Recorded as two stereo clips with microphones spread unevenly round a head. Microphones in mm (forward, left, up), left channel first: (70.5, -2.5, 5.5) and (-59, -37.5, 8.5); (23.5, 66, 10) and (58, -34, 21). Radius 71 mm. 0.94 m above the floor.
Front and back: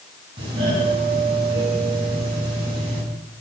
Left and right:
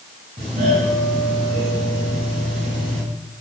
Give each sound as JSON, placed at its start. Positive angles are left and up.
{"t": 0.4, "sound": "a doorbell", "azimuth_deg": -110, "distance_m": 9.5}